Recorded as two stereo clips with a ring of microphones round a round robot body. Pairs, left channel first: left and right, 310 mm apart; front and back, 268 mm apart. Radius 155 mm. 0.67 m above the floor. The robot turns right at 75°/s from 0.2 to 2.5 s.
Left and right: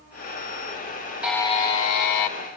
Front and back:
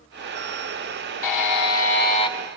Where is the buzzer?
5° right, 1.3 m; by 2.3 s 80° left, 1.3 m.